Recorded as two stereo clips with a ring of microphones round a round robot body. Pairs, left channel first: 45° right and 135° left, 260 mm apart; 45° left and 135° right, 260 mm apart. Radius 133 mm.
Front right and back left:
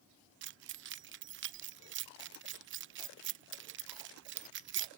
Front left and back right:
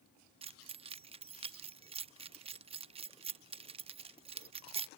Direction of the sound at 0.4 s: 160° left.